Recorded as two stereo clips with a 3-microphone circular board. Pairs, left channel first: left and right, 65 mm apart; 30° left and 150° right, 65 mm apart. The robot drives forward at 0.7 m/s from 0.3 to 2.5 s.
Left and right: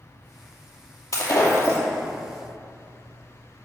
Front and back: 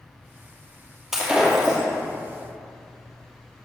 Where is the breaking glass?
125° left, 2.5 m; by 1.8 s 135° left, 2.5 m.